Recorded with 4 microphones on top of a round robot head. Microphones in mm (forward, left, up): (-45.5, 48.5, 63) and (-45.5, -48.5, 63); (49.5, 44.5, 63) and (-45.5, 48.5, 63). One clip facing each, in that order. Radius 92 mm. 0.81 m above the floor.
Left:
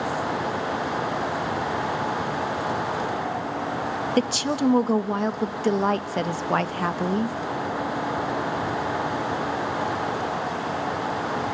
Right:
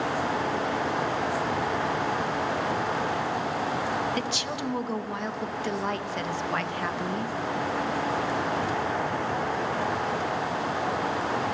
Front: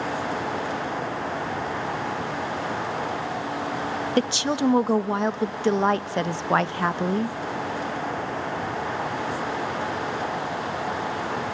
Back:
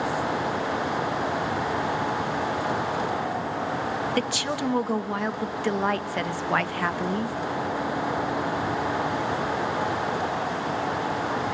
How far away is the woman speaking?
About 0.6 m.